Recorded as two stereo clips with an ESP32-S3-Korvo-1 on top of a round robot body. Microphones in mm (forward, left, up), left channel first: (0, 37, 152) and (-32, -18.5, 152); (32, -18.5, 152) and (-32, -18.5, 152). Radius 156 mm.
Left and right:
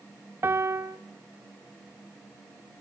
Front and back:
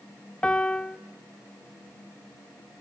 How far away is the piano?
About 1.0 m.